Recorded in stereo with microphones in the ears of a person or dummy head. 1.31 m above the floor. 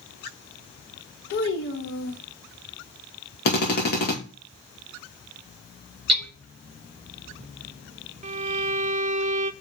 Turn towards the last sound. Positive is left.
turn(degrees=-40)  # may be behind; listen again after turning